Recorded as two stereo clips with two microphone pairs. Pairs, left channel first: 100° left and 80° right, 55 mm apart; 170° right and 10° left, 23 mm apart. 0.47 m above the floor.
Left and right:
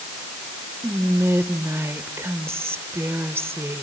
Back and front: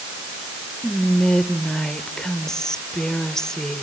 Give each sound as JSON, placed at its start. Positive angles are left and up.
{"t": 0.8, "sound": "whispering", "azimuth_deg": -105, "distance_m": 1.2}